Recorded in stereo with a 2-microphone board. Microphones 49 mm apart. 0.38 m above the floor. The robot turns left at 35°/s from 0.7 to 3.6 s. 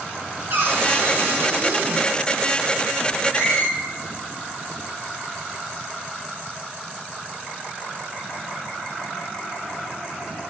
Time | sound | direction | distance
0.5 | a cupboard door | 80° right | 0.7 m
3.3 | a squeak | 50° left (ahead or behind) | 1.4 m